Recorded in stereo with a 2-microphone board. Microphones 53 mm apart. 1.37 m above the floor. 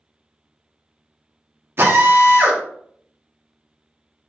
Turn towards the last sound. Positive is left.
turn(degrees=-50)  # may be behind; listen again after turning